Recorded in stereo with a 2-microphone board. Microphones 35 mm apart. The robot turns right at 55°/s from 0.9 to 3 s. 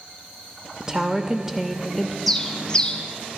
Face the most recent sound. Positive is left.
turn(degrees=40)